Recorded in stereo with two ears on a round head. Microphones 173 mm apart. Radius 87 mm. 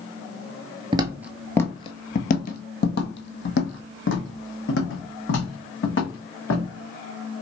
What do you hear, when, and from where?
0.9 s footsteps: 25° right (ahead or behind), 0.6 m; by 6.7 s 75° left (ahead or behind), 3 m